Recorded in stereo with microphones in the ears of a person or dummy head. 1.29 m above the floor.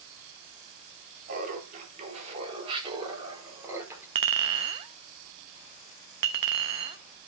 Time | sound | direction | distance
1.3 | laughter | 55° right (ahead or behind) | 3.5 m
4.2 | a clink | 25° right (ahead or behind) | 0.7 m